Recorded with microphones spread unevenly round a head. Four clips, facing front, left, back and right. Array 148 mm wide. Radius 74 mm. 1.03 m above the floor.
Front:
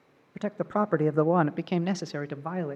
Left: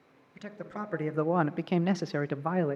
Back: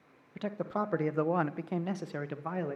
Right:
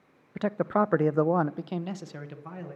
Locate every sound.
0.3 s a man speaking: 70° right, 1.2 m; by 2.8 s 80° left, 1.3 m